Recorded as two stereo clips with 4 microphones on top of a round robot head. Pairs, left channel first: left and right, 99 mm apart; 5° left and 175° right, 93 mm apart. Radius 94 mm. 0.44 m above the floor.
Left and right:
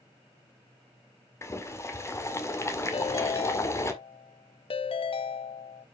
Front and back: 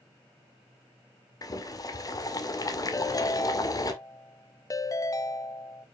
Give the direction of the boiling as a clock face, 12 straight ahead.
11 o'clock.